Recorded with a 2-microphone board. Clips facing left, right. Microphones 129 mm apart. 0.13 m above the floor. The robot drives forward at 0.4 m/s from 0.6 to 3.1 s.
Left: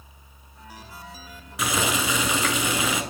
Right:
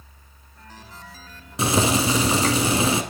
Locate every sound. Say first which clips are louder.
1.6 s boiling: right 5 dB; 35° right (ahead or behind), 0.7 m